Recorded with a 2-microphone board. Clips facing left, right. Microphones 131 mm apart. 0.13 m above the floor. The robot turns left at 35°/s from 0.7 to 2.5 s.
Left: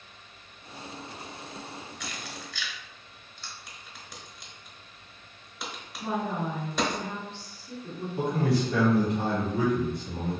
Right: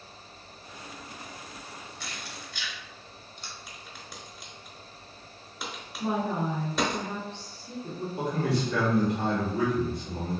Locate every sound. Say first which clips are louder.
2.0 s keys jangling: left 2 dB; 35° right (ahead or behind), 0.9 m; by 3.5 s 25° right (ahead or behind), 0.9 m
3.7 s a crack: right 2 dB; centre (ahead or behind), 0.8 m
6.0 s a woman speaking: right 2 dB; 25° right (ahead or behind), 1.1 m
8.2 s a man speaking: left 3 dB; 30° left (ahead or behind), 1.8 m